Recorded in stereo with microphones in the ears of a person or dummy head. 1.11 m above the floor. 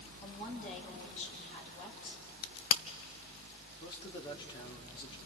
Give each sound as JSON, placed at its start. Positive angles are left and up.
{"t": 0.2, "sound": "a woman speaking", "side_deg": 45, "distance_m": 6.0}
{"t": 2.4, "sound": "a crack", "side_deg": 50, "distance_m": 1.0}
{"t": 3.8, "sound": "a man speaking", "side_deg": 30, "distance_m": 2.5}